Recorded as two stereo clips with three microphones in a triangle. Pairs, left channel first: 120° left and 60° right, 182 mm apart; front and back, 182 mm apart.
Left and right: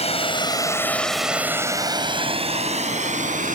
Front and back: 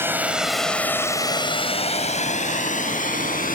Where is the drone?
110° left; by 3.5 s 30° right.